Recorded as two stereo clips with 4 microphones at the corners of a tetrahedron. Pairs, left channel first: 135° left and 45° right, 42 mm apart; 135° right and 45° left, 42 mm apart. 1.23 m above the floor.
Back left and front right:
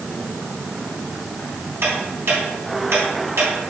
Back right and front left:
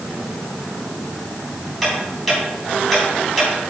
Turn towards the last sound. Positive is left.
turn(degrees=-45)